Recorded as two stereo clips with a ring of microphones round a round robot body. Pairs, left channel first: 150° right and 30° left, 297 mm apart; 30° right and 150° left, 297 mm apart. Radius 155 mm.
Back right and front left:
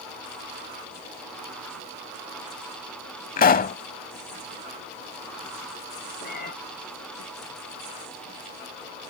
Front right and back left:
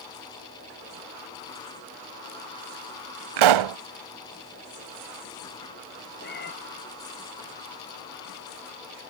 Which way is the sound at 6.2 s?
90° right.